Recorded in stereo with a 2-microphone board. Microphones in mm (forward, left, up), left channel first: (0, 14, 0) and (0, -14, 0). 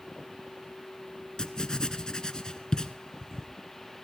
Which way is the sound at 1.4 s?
25° left (ahead or behind).